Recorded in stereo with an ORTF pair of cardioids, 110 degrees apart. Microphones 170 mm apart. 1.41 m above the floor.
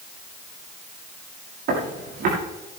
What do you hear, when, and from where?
1.7 s footsteps: 65° right, 7 m